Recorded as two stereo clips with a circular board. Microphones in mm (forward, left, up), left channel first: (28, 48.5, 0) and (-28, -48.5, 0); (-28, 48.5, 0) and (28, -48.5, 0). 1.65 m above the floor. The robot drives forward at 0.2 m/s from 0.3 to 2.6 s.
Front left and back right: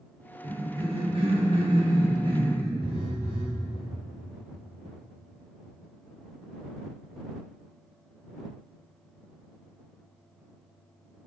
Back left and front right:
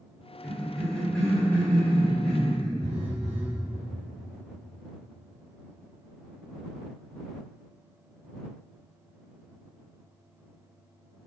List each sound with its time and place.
0.4 s a cough: 155° right, 0.9 m; by 2.7 s 165° right, 1.3 m
2.8 s a phone buzzing: 80° right, 0.6 m